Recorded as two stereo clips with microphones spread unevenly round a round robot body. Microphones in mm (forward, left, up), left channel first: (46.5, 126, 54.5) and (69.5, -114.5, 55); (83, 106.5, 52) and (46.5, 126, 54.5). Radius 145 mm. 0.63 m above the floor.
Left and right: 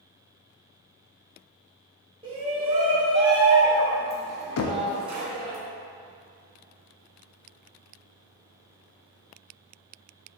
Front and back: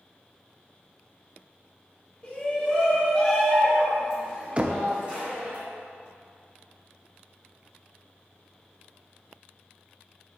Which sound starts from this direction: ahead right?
A shout, at 2.2 s.